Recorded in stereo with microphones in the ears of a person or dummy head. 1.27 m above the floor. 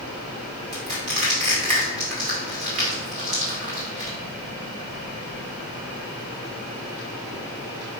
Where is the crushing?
40° right (ahead or behind), 2 m.